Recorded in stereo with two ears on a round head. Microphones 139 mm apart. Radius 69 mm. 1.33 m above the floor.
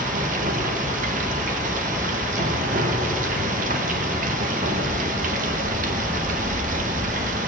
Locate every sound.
0.0 s running water: 55° right (ahead or behind), 1.1 m